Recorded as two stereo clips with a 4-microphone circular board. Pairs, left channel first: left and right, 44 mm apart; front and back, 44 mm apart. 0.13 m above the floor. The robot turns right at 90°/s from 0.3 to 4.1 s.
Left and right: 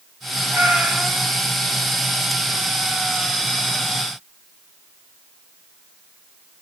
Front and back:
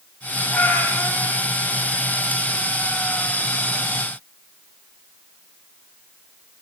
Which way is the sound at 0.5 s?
55° right.